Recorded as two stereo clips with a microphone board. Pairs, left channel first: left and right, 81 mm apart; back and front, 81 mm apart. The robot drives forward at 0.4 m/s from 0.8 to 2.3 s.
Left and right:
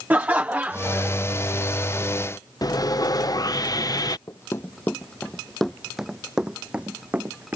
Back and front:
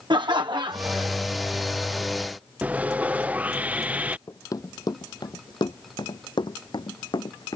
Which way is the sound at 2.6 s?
65° left.